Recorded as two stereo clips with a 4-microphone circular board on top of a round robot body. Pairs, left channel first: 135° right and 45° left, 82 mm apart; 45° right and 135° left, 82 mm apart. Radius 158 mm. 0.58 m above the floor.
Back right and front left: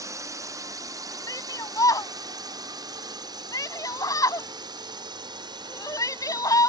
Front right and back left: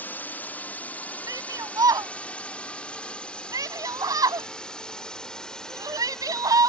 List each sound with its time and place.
0.0 s a drone: 15° left; by 6.7 s 40° left
1.3 s a shout: straight behind